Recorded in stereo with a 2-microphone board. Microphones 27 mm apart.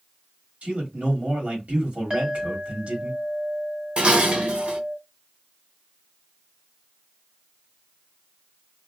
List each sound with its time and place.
0.6 s a man speaking: 50° right (ahead or behind), 1.5 m
2.1 s a clink: 35° right (ahead or behind), 1.1 m
4.0 s dishes clattering: 40° right (ahead or behind), 0.6 m